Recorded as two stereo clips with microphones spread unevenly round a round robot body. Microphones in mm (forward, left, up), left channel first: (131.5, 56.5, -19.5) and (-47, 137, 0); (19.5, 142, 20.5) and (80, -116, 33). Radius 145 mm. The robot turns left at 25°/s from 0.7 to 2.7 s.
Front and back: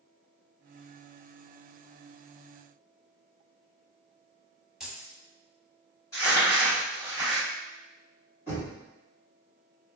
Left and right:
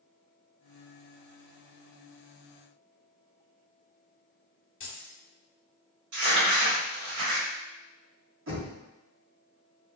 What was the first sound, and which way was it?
Keys jangling, 65° left.